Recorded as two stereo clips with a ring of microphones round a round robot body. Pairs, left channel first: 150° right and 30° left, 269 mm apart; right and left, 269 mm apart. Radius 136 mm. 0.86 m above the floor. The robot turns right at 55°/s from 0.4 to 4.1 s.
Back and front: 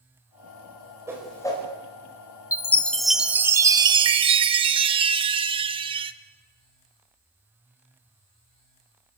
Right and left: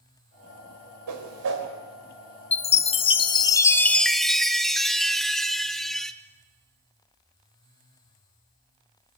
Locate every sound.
1.1 s a whoosh: 110° left, 4 m; by 1.7 s 140° left, 4 m
2.5 s a chime: 90° right, 0.5 m; by 6.1 s 5° right, 0.5 m